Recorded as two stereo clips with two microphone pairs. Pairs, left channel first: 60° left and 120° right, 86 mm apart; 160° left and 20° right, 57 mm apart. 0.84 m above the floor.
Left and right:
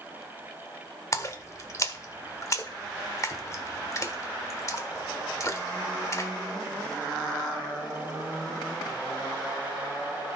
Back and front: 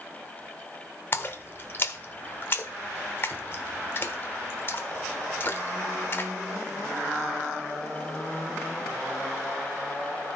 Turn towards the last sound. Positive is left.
turn(degrees=110)